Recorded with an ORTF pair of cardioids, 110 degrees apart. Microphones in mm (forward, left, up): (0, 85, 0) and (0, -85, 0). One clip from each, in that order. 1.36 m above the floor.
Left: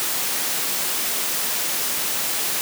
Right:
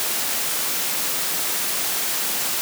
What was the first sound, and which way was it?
Only background noise.